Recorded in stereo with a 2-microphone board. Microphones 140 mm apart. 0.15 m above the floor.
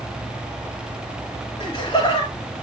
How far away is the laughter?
About 3 m.